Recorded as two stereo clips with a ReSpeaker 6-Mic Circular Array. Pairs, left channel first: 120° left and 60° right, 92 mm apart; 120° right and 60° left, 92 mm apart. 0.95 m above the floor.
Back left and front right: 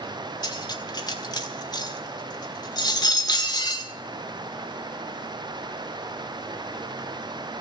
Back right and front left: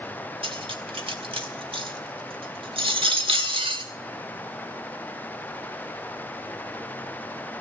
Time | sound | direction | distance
0.4 | cutlery clinking | 80° left | 1.6 m